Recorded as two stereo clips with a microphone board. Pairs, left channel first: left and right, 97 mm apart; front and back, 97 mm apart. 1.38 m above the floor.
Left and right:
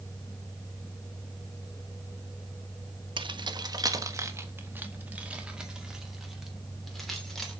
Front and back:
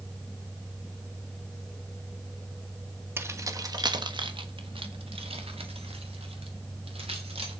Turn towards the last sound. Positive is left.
turn(degrees=175)